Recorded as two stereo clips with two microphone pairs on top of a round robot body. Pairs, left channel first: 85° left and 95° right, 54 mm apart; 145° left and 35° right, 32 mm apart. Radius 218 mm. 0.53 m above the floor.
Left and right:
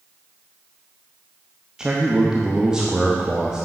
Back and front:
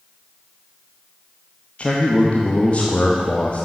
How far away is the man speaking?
About 1.2 m.